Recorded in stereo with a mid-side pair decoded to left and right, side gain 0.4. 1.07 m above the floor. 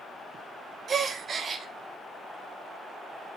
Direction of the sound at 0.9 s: 50° right.